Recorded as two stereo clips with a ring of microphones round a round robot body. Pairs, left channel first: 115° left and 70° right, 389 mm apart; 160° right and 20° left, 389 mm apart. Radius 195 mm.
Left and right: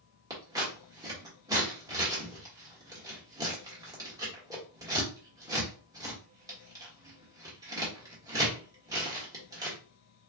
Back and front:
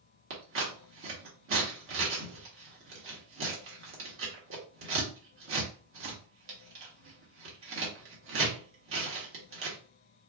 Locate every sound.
0.3 s scissors: 5° left, 1.5 m